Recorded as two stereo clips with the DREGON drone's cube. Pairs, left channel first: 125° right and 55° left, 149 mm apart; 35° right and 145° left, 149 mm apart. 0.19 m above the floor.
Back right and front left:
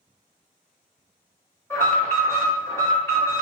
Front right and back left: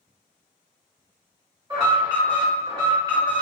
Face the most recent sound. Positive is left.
turn(degrees=180)